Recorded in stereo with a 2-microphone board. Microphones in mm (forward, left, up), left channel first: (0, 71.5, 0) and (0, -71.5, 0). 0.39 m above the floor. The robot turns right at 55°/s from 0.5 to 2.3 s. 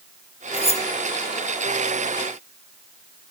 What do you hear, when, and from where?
0.5 s cutlery clinking: 40° left (ahead or behind); by 0.8 s 55° left (ahead or behind)